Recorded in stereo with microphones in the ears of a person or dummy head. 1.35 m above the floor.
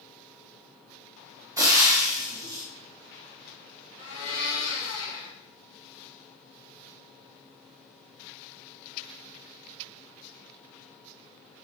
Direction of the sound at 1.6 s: 15° right (ahead or behind).